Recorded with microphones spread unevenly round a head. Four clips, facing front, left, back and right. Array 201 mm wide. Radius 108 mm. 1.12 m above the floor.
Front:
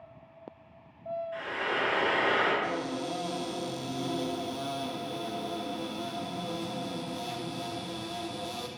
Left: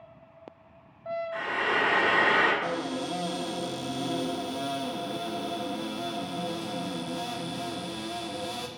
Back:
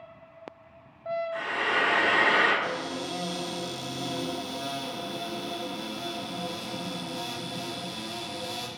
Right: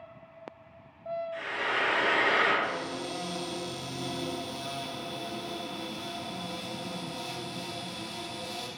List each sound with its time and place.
1.3 s frying: 105° left, 6 m
2.6 s a cupboard door: 90° left, 1.9 m